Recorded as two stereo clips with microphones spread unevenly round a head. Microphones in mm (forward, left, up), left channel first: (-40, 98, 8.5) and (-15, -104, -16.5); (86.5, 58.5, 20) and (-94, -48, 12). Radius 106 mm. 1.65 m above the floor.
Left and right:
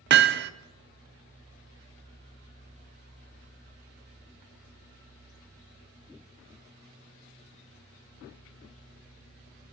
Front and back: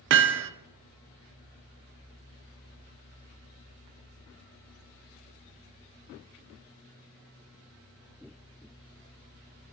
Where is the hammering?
120° right, 0.6 m.